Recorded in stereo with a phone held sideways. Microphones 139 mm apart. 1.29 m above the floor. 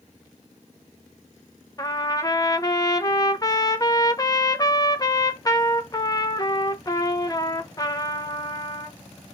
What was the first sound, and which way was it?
A trumpet, 25° left (ahead or behind).